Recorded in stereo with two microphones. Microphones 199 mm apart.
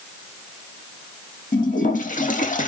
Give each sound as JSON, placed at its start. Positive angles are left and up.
{"t": 1.5, "sound": "a toilet flushing", "side_deg": 40, "distance_m": 0.5}